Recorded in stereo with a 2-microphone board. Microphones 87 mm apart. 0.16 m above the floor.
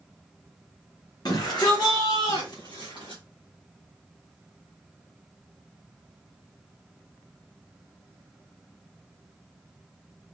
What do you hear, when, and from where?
1.2 s a shout: 50° left (ahead or behind), 2 m; by 3.2 s 65° left (ahead or behind), 3 m